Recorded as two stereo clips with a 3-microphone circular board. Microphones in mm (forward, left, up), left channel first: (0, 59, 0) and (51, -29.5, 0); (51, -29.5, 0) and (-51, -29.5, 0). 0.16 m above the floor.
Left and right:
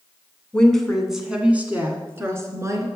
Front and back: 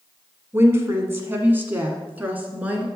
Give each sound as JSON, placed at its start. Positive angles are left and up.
{"t": 0.5, "sound": "a woman speaking", "azimuth_deg": -170, "distance_m": 1.2}